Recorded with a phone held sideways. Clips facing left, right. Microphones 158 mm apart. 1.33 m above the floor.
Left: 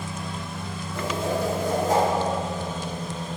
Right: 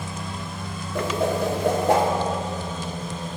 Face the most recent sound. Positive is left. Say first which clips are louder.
# right 3 dB
turn(degrees=-70)  # may be behind; listen again after turning